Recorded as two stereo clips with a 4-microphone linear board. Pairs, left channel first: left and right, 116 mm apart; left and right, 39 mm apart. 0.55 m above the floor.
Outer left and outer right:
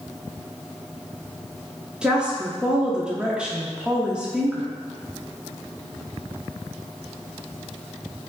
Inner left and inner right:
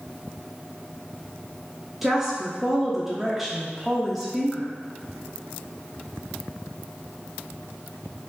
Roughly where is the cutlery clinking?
No cutlery clinking in this recording.